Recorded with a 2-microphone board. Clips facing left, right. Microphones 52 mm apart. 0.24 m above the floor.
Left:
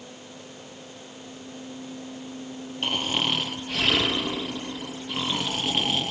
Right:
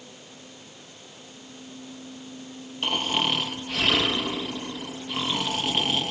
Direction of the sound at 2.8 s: Centre (ahead or behind).